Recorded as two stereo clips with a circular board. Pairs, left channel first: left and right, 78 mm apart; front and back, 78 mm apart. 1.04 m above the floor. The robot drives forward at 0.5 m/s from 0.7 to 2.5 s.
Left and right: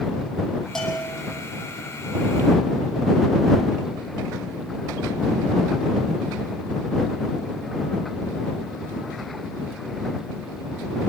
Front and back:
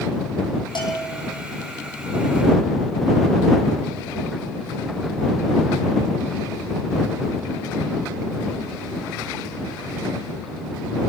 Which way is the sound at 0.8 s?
5° left.